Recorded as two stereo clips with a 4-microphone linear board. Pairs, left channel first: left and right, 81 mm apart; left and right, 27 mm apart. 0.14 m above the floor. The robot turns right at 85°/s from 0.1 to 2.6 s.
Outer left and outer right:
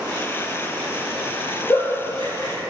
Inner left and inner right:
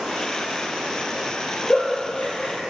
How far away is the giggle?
About 1.9 m.